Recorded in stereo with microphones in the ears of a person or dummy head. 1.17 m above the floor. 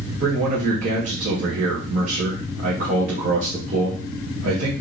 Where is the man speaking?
45° right (ahead or behind), 0.8 m.